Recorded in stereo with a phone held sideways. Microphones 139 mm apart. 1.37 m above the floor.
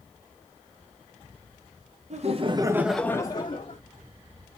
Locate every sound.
2.1 s laughter: 55° right (ahead or behind), 1.3 m; by 3.8 s 50° left (ahead or behind), 1.6 m